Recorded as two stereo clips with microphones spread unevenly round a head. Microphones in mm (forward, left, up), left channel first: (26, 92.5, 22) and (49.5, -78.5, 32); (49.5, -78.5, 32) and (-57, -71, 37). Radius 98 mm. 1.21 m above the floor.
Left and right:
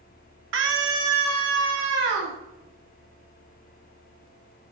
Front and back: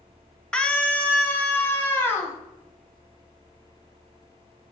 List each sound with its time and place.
0.5 s a scream: 85° right, 1.5 m; by 2.4 s 70° right, 2.5 m